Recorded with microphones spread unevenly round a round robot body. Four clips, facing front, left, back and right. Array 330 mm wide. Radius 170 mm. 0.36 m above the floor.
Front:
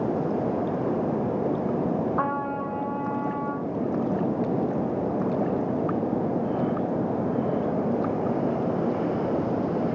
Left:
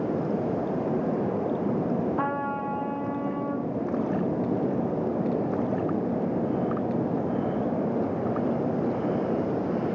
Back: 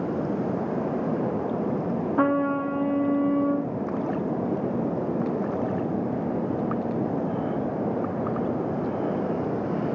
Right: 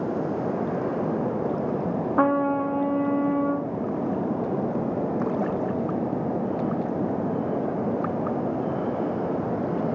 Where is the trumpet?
115° right, 3.5 m.